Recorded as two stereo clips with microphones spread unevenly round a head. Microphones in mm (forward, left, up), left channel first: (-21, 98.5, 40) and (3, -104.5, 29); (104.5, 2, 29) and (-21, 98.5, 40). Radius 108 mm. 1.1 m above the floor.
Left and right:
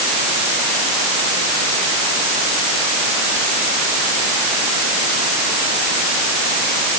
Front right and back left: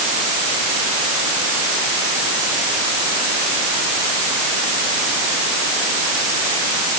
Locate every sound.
Only background noise.